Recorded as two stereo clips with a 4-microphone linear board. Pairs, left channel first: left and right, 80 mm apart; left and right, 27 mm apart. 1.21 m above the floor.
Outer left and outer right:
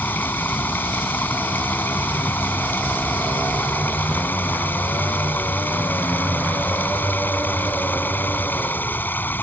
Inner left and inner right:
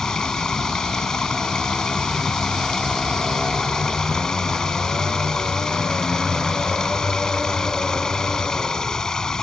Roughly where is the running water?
Left.